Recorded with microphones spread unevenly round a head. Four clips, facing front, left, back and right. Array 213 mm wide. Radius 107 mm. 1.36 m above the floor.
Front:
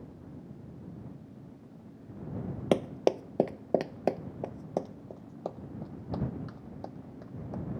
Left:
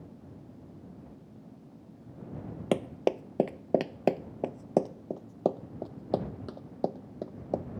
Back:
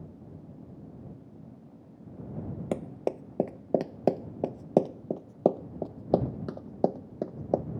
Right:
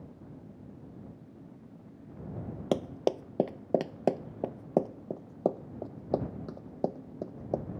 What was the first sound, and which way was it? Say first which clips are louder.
Running footsteps: left 1 dB, front 5 dB; 15° left.